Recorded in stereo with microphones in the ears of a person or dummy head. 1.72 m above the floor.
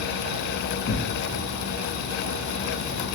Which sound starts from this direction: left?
Tearing paper, at 0.9 s.